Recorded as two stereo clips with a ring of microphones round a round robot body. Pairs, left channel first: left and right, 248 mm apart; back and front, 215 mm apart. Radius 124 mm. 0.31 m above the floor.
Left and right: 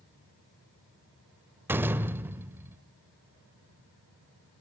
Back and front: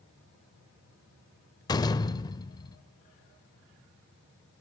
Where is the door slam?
155° right, 0.5 m.